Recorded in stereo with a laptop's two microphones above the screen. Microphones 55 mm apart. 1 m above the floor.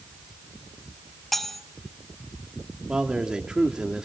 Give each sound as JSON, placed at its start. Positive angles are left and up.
{"t": 1.3, "sound": "cutlery clinking", "side_deg": 5, "distance_m": 0.6}
{"t": 2.9, "sound": "a man speaking", "side_deg": -15, "distance_m": 2.0}